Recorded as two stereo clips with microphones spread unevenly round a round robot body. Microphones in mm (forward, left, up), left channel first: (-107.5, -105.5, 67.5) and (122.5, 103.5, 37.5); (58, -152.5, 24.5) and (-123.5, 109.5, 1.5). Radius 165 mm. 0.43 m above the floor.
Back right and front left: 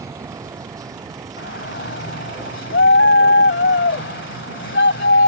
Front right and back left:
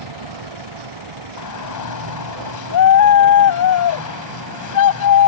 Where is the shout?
85° right.